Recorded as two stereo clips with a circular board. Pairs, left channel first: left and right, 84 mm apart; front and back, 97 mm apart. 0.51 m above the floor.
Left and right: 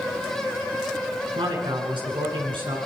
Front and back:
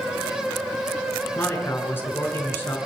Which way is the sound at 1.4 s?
65° right.